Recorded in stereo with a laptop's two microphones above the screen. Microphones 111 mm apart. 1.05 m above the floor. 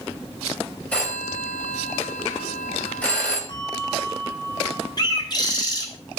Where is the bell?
40° left (ahead or behind), 3 m.